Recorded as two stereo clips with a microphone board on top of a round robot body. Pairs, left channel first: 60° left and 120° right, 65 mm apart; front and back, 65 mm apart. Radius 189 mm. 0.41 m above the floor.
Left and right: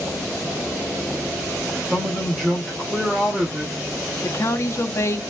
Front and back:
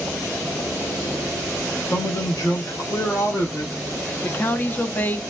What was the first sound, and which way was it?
A man speaking, 30° right.